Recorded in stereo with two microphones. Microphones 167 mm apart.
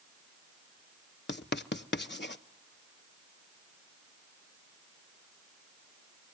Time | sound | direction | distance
1.3 | writing | 80° left | 0.5 m